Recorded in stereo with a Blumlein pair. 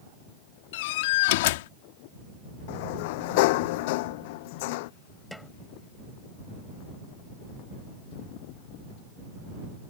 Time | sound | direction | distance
0.7 | a door slam | 50° left | ?
2.7 | a sliding door | 50° left | ?
5.3 | a snare drum | 5° left | ?